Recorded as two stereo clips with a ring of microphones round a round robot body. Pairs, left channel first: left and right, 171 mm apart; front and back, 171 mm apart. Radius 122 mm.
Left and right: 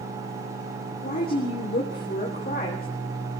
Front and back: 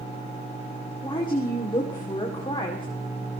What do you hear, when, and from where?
1.0 s a woman speaking: 60° left, 2.5 m